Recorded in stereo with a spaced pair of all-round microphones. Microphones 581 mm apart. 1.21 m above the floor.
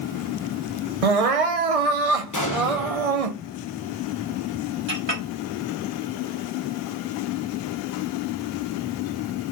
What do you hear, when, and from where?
1.0 s crying: 70° right (ahead or behind), 0.8 m
2.3 s an explosion: 30° left (ahead or behind), 1.1 m
4.9 s a clink: 50° right (ahead or behind), 2.0 m